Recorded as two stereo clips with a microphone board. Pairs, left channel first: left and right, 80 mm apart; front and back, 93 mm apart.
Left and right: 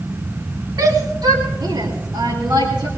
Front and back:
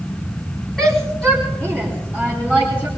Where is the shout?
85° right, 2.5 m; by 2.9 s 75° right, 4.5 m.